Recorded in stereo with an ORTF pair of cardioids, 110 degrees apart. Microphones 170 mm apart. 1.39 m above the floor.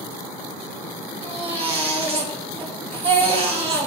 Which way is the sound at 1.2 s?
35° right.